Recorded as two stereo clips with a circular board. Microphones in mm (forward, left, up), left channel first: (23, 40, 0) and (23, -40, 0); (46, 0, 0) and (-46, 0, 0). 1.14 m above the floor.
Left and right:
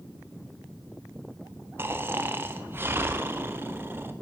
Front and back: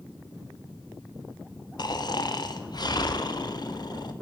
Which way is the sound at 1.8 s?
30° right.